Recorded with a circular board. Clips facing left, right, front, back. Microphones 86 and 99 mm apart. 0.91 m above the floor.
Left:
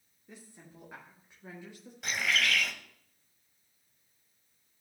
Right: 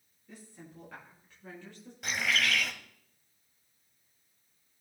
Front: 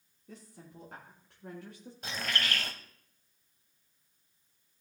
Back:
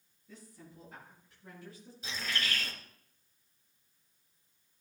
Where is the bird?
Straight ahead, 1.3 m.